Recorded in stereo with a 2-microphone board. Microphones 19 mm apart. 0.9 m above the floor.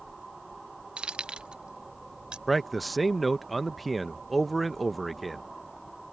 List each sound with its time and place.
1.0 s keys jangling: 85° right; by 2.4 s 75° right (ahead or behind)
2.5 s a man speaking: 5° left (ahead or behind)